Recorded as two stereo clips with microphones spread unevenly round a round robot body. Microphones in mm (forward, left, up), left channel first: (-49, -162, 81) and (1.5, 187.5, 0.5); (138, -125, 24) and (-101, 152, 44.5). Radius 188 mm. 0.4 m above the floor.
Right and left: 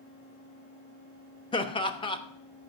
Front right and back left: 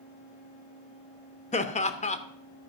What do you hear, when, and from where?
1.5 s laughter: 10° right, 0.9 m